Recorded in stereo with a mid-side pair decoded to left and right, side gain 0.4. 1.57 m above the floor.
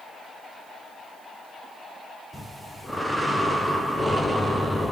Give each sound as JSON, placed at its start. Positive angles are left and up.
{"t": 2.3, "sound": "breathing", "azimuth_deg": 0, "distance_m": 0.8}